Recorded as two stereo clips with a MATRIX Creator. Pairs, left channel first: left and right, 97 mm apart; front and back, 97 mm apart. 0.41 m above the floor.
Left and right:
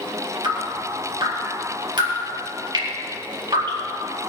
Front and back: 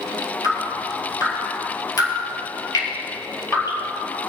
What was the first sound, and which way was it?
Dripping, 50° right.